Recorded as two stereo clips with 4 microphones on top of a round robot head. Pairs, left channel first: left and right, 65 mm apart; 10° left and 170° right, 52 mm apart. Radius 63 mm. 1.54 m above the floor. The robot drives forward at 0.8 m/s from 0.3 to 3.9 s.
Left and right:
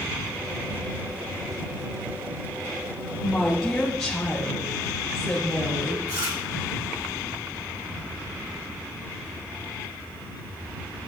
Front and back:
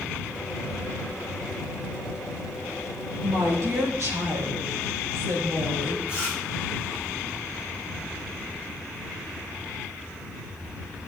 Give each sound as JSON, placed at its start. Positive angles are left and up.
{"t": 3.2, "sound": "a woman speaking", "azimuth_deg": 175, "distance_m": 3.5}
{"t": 6.1, "sound": "chewing", "azimuth_deg": -100, "distance_m": 5.5}